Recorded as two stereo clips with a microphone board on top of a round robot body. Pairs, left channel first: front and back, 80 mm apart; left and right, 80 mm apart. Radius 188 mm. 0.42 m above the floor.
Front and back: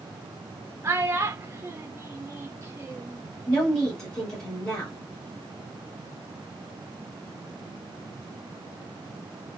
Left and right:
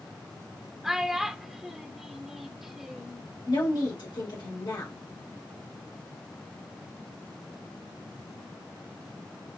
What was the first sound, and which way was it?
A child speaking, 170° right.